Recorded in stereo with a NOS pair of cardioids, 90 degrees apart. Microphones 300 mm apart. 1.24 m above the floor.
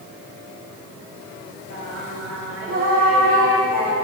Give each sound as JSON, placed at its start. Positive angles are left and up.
{"t": 1.7, "sound": "singing", "azimuth_deg": -50, "distance_m": 2.5}